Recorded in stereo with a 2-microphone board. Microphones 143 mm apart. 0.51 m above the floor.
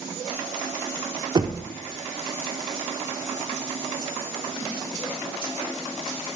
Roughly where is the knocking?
Right.